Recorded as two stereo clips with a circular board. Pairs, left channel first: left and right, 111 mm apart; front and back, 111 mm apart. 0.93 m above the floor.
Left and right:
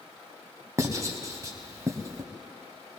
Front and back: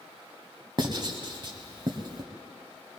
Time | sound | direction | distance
0.8 | writing | 145° right | 1.2 m